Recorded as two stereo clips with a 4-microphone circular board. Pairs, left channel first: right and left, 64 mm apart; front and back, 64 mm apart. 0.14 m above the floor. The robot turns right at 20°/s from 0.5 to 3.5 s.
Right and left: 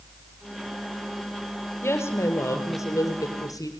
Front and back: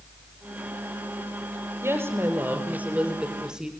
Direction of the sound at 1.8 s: 135° right.